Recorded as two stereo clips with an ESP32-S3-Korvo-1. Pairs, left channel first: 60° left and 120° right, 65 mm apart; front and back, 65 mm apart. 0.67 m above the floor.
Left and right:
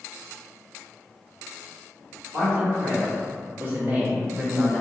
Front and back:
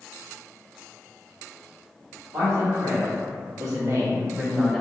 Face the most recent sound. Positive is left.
turn(degrees=75)